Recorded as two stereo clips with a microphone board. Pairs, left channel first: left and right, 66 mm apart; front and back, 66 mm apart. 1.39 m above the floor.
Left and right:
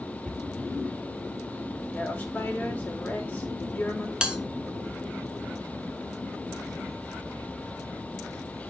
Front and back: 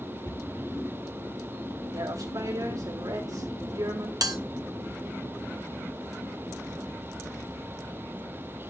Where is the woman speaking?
160° left, 2.5 m.